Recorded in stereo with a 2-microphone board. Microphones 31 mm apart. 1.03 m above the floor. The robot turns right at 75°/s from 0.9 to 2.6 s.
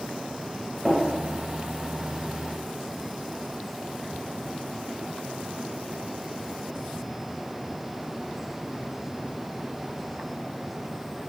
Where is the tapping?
10° right (ahead or behind), 1.2 m; by 1.0 s 15° right (ahead or behind), 1.2 m.